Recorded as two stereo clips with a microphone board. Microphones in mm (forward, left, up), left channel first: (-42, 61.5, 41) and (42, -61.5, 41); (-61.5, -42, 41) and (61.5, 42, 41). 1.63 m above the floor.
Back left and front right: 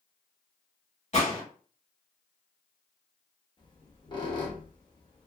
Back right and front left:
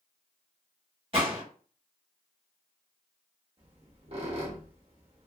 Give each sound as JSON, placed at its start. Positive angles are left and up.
{"t": 1.1, "sound": "a gunshot", "azimuth_deg": 85, "distance_m": 1.5}
{"t": 3.6, "sound": "a squeak", "azimuth_deg": 70, "distance_m": 0.9}